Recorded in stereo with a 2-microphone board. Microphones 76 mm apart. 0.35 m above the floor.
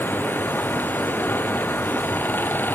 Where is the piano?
No piano in this recording.